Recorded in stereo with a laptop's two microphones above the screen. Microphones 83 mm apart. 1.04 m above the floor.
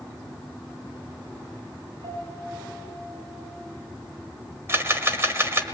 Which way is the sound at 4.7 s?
30° right (ahead or behind).